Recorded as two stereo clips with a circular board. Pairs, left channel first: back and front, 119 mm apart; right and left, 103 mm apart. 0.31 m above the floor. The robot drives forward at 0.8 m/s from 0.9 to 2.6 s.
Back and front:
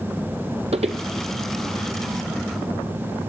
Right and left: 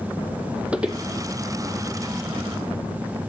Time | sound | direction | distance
0.7 | footsteps | 15° left | 0.6 m